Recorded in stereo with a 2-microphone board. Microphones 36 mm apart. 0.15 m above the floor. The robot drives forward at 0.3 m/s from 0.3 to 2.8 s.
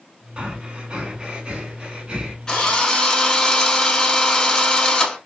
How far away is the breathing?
About 1.0 m.